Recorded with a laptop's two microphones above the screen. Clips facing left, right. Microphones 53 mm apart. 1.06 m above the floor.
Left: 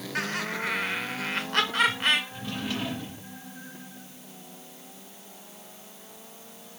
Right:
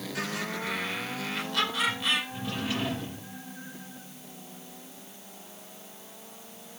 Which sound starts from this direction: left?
Laughter, at 0.1 s.